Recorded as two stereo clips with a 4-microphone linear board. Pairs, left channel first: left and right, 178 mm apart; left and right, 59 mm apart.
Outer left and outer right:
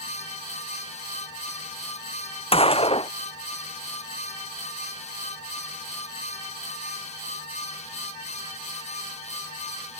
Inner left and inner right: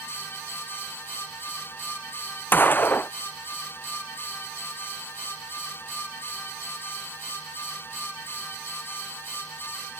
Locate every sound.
2.5 s a gunshot: 35° left (ahead or behind)